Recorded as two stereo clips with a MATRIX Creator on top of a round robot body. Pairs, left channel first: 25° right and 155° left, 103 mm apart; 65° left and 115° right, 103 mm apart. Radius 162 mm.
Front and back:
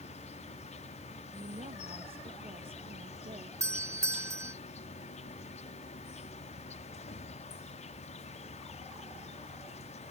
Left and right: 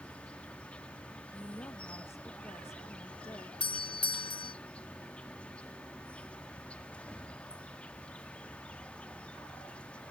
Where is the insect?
15° right.